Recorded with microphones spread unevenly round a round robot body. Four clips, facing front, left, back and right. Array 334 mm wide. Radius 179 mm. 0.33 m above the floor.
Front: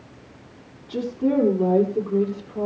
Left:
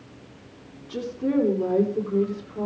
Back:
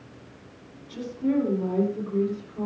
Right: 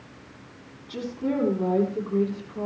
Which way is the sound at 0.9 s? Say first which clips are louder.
Left 3 dB, front 4 dB; straight ahead.